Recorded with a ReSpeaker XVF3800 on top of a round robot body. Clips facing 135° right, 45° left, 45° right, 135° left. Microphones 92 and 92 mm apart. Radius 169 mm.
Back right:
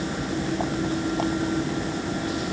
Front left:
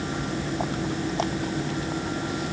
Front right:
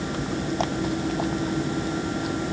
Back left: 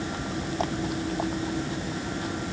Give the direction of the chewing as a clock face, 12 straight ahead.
I don't hear chewing.